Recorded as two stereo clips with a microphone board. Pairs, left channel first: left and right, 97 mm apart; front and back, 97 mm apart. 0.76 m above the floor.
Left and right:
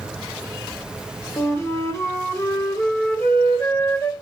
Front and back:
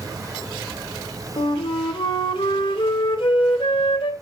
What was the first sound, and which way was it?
A flute, 30° left.